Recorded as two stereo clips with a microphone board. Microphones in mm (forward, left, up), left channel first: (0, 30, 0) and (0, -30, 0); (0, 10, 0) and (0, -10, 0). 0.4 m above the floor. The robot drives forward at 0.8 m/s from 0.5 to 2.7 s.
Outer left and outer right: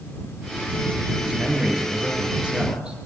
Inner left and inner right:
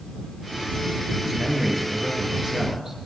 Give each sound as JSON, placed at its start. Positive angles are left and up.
{"t": 1.2, "sound": "a man speaking", "side_deg": -15, "distance_m": 9.0}